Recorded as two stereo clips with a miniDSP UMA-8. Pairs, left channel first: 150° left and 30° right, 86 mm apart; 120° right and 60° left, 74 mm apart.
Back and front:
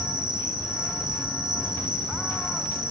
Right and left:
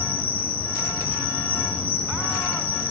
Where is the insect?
Straight ahead, 7.5 m.